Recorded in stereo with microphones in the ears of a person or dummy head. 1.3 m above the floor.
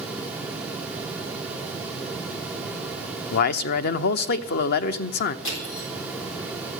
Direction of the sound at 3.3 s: 60° left (ahead or behind).